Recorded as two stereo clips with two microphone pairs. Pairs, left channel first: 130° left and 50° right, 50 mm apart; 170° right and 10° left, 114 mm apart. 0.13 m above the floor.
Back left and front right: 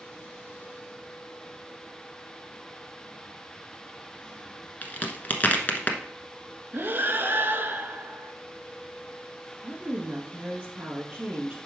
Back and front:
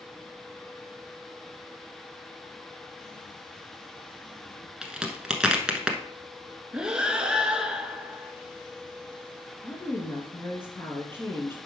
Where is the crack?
95° left, 1.1 m.